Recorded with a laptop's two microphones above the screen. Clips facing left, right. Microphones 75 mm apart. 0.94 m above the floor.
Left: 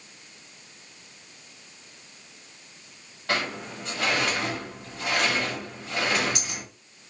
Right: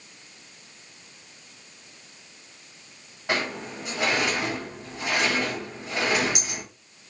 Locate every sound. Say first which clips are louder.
3.3 s a sliding door: right 1 dB; 15° right (ahead or behind), 1.0 m